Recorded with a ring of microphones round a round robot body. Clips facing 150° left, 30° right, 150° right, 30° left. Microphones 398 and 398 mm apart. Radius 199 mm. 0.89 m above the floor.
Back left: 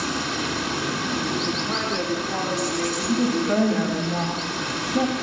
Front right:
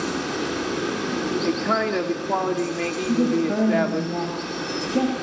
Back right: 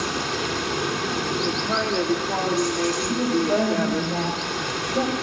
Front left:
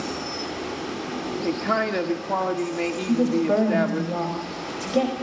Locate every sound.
0.0 s running water: 150° right, 3 m
1.4 s a man speaking: 20° right, 1.8 m
3.1 s a woman speaking: 65° left, 5 m